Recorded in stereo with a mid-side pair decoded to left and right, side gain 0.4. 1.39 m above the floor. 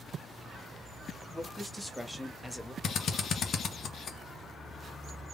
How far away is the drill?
About 1.2 m.